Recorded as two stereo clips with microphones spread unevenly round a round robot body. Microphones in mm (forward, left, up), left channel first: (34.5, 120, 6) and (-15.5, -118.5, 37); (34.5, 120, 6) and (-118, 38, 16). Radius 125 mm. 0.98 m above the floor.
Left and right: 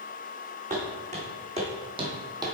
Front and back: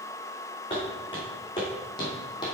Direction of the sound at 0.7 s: 45° right.